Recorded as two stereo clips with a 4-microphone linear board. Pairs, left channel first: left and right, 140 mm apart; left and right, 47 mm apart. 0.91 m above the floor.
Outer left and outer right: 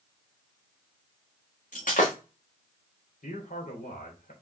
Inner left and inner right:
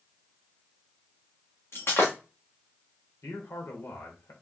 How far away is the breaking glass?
About 3.5 m.